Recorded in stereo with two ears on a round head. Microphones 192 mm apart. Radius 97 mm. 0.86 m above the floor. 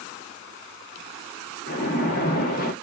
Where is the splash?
40° left (ahead or behind), 1.4 m.